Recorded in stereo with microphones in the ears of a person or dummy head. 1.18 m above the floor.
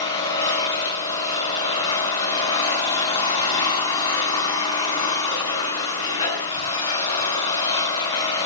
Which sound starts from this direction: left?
An engine running, at 0.0 s.